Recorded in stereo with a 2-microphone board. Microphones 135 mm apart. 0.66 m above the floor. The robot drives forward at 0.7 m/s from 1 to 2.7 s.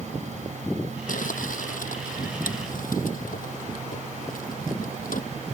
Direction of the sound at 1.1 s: 75° left (ahead or behind).